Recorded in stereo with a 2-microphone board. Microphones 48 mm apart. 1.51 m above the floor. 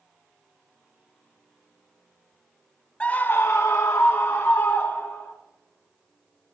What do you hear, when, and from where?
3.0 s a scream: 20° left (ahead or behind), 0.6 m; by 5.3 s 55° left (ahead or behind), 1.8 m